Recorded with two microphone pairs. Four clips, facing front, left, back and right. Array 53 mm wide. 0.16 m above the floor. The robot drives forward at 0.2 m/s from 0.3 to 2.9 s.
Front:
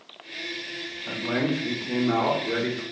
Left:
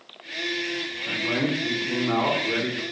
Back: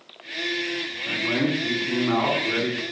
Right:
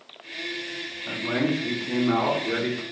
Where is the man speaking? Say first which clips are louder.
Even, back 2 dB; 165° right, 1.6 m; by 2.8 s 170° right, 1.7 m.